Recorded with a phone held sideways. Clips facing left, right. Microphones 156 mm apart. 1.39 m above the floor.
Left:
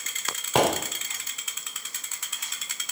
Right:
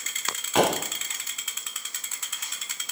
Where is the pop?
35° left (ahead or behind), 3.5 m.